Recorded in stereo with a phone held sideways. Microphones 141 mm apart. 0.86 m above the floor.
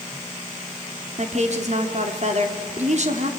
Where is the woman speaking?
55° right (ahead or behind), 2.5 m.